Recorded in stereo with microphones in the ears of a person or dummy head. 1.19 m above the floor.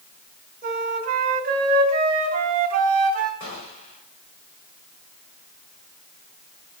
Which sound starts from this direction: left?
A gunshot, at 3.4 s.